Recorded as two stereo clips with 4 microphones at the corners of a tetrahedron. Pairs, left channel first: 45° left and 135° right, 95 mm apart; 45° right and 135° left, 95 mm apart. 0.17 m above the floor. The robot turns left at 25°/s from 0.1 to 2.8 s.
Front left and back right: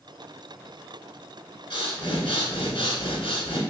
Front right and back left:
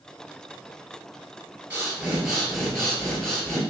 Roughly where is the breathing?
Ahead left.